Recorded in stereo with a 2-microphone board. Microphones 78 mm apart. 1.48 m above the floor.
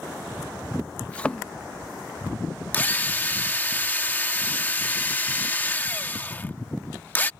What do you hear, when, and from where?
1.1 s a thud: 20° left (ahead or behind)
2.7 s a drill: 25° left (ahead or behind)